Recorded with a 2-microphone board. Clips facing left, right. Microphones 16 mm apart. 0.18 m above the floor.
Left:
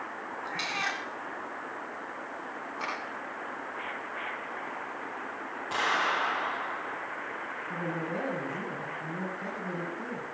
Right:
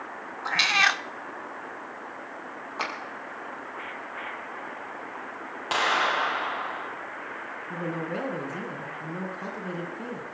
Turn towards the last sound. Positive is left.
turn(degrees=-55)  # may be behind; listen again after turning